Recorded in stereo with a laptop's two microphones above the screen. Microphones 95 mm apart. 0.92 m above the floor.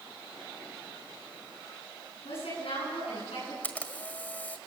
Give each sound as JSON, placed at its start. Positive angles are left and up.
{"t": 2.2, "sound": "a woman speaking", "side_deg": 85, "distance_m": 9.5}
{"t": 3.6, "sound": "a camera shutter", "side_deg": 20, "distance_m": 1.6}